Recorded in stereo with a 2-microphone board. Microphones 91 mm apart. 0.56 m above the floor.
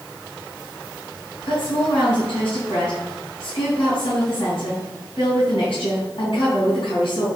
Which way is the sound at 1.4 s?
75° left (ahead or behind).